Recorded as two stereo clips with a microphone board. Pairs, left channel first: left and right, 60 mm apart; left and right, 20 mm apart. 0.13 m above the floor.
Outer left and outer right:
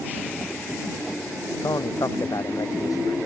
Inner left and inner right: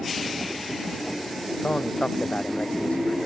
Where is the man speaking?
80° left; by 3.2 s 75° left (ahead or behind).